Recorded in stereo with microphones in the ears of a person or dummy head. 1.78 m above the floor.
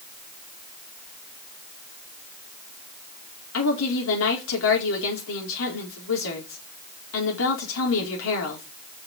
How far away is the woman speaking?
About 4.5 m.